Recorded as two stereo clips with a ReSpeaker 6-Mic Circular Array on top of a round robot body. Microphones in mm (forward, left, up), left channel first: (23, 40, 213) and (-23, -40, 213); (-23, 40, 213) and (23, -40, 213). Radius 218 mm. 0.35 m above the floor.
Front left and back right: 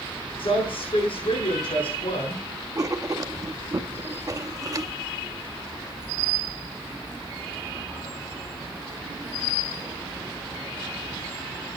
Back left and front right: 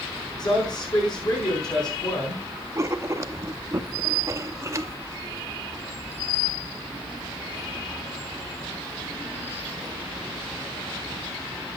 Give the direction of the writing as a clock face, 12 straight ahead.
3 o'clock.